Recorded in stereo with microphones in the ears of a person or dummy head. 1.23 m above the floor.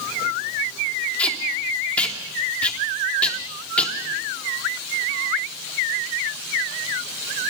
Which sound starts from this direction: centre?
Tape being pulled, at 1.2 s.